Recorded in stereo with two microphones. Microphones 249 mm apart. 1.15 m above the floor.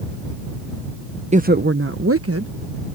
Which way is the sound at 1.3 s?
25° right (ahead or behind).